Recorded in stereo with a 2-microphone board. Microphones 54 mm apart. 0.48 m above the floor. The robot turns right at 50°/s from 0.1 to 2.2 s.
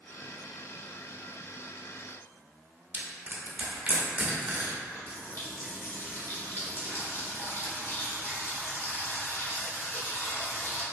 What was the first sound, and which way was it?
Crushing, 25° right (ahead or behind).